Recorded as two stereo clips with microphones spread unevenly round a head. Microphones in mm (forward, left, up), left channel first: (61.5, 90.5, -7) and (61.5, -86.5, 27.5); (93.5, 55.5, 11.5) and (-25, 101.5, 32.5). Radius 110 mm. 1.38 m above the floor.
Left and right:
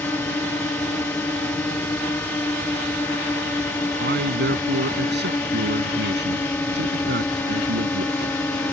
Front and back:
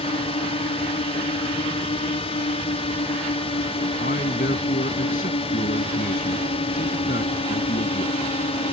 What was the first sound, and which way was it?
A drone, 10° left.